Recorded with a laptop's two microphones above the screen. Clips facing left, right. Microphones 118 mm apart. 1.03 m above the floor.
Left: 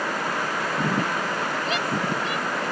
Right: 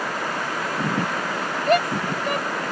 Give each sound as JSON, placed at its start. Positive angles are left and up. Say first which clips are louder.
{"t": 1.7, "sound": "a shout", "louder": "right 10 dB", "side_deg": -50}